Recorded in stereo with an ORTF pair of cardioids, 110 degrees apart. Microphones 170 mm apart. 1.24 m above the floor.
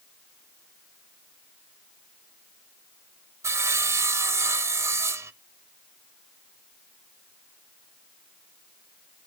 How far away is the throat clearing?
I don't hear throat clearing.